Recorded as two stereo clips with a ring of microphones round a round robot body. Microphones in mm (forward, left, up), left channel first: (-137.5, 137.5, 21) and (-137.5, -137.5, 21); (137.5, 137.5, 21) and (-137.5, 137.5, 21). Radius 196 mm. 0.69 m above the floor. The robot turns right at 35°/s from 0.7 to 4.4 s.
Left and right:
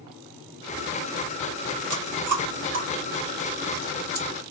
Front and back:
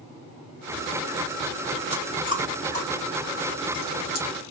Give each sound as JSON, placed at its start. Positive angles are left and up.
{"t": 1.9, "sound": "chewing", "azimuth_deg": -110, "distance_m": 2.5}